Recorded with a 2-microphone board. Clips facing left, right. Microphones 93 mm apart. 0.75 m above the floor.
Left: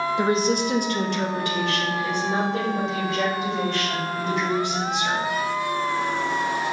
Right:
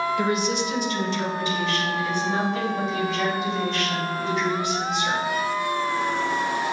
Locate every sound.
0.2 s a woman speaking: 20° left (ahead or behind), 0.5 m; by 5.2 s 70° left (ahead or behind), 3.5 m